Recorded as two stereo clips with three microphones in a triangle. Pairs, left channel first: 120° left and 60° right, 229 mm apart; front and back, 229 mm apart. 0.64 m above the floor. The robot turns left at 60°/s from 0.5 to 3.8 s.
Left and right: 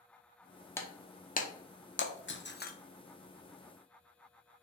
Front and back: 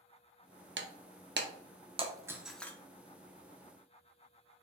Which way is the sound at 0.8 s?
165° right.